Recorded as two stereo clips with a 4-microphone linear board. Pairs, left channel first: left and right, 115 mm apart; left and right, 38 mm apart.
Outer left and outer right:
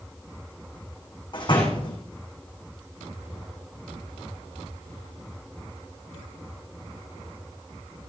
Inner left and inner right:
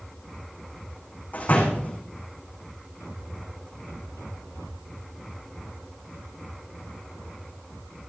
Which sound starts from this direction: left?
A door slam, at 1.3 s.